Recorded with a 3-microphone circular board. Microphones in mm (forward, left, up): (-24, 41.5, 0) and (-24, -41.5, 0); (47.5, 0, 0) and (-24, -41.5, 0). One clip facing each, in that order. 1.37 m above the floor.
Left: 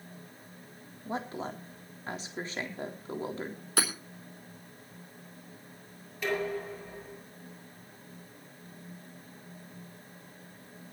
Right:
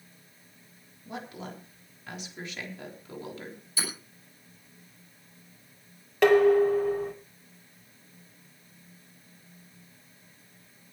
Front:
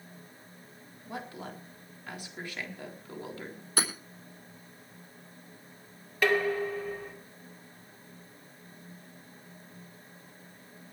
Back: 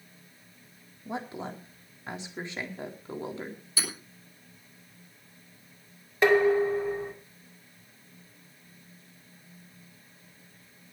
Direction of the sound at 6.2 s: 85° right.